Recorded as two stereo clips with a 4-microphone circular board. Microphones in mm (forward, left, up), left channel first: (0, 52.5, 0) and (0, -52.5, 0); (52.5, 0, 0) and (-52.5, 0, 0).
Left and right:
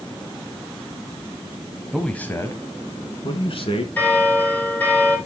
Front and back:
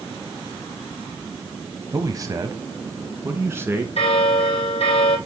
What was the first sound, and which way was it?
A man speaking, 175° right.